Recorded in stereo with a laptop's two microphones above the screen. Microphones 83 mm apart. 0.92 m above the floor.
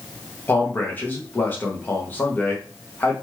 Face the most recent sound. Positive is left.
turn(degrees=25)  # may be behind; listen again after turning